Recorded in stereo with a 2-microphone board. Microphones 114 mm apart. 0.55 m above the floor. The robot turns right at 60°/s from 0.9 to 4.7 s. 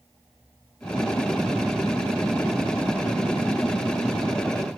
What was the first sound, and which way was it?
Only background noise.